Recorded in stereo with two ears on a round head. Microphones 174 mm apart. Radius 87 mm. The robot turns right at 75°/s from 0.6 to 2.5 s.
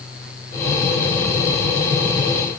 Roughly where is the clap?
No clap in this recording.